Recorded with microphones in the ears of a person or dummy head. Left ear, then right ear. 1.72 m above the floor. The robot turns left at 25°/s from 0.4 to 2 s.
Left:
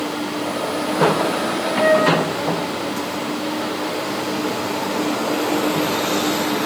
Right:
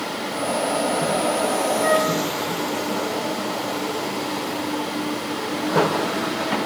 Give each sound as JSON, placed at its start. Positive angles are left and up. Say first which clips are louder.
{"t": 1.8, "sound": "a flute", "louder": "left 7 dB", "side_deg": 75, "distance_m": 7.0}